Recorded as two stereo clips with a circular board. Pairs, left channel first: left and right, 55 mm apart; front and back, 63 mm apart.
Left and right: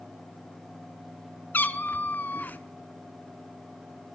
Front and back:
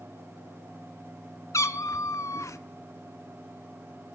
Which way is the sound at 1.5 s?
35° left.